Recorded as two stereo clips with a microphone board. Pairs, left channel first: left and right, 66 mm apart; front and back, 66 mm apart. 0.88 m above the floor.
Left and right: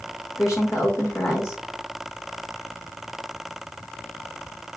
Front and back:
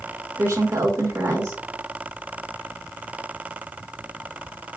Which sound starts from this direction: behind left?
A woman speaking, at 0.4 s.